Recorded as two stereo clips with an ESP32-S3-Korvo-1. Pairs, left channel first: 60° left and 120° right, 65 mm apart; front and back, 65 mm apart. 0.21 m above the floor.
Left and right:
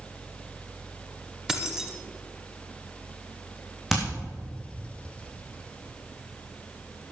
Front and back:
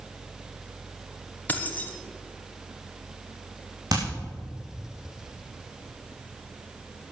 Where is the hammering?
155° left, 5.5 m.